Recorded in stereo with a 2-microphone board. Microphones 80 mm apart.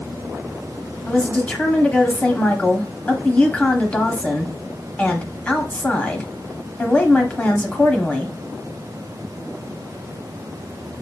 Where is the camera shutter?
I don't hear a camera shutter.